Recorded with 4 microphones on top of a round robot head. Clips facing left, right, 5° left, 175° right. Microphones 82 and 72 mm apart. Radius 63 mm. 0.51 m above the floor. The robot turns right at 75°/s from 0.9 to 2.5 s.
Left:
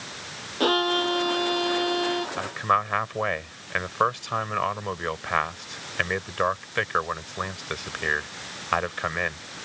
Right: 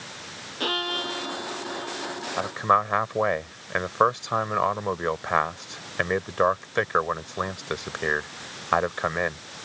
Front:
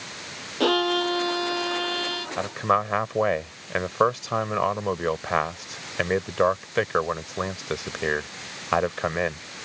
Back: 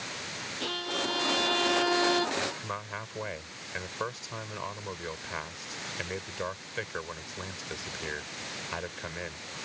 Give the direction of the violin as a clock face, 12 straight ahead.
11 o'clock.